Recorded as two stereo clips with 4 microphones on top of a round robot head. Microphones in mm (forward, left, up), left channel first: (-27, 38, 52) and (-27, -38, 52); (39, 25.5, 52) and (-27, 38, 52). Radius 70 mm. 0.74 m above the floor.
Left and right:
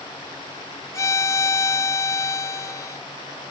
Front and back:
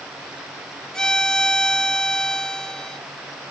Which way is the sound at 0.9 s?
65° left.